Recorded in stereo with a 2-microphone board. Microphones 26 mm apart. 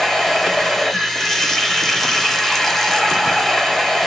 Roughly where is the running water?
Centre.